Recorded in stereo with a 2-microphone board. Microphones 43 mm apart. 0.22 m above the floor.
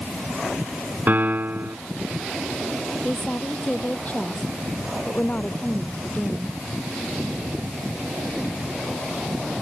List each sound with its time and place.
1.1 s a piano: 50° right (ahead or behind)
3.0 s a woman speaking: 35° left (ahead or behind)